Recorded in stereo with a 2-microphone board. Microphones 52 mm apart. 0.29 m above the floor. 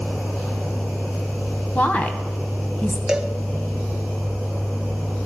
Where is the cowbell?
10° right (ahead or behind), 0.9 m.